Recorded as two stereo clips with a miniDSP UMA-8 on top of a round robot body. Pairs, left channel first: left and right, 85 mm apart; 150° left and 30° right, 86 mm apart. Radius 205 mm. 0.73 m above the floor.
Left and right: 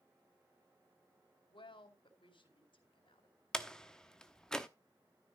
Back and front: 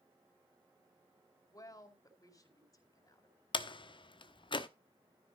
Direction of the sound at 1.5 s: 105° left.